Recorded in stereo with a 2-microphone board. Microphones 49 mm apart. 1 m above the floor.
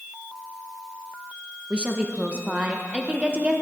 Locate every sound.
1.7 s a woman speaking: 20° right (ahead or behind), 0.8 m